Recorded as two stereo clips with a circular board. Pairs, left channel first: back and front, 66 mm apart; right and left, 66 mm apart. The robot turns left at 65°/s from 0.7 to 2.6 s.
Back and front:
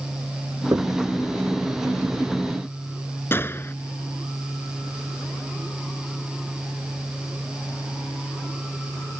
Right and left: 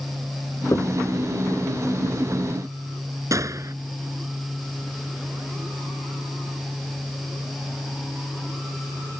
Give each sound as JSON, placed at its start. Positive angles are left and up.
{"t": 0.7, "sound": "knocking", "azimuth_deg": -45}
{"t": 3.3, "sound": "a gunshot", "azimuth_deg": 125}